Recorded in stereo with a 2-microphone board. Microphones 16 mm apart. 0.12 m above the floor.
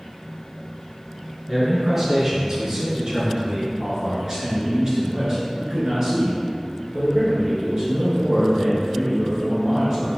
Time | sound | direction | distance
1.5 | a man speaking | 5° right (ahead or behind) | 1.3 m
3.8 | a man speaking | 35° right (ahead or behind) | 1.7 m